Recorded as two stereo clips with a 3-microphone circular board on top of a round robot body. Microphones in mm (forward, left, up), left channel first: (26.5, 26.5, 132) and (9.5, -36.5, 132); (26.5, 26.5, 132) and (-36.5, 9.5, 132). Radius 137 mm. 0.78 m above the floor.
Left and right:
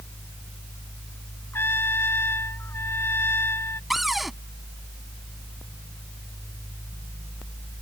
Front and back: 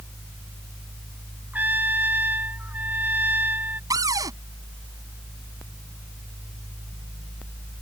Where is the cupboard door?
165° left.